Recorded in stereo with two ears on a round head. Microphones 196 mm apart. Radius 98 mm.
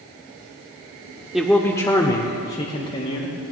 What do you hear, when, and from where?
1.3 s a man speaking: 5° right (ahead or behind), 0.8 m; by 3.4 s 35° left (ahead or behind), 1.9 m